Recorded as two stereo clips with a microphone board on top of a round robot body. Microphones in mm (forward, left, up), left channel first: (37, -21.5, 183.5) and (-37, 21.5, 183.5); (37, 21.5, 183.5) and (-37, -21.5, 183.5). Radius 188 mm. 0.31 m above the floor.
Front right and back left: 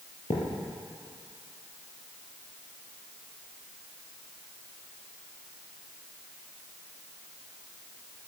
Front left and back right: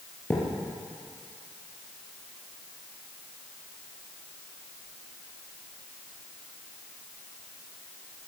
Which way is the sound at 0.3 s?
35° right.